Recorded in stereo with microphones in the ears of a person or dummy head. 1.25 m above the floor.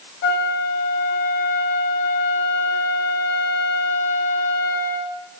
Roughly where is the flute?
Left.